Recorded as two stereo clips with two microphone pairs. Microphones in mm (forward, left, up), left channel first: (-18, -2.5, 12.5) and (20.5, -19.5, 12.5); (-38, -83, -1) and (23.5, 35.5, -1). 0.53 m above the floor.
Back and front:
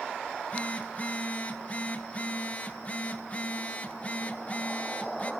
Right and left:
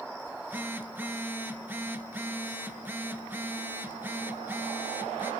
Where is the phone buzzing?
130° left, 1.1 m.